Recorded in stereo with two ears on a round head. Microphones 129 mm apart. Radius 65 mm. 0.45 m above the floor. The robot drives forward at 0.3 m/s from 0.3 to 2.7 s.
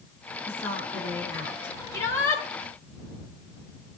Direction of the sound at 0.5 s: 20° left (ahead or behind).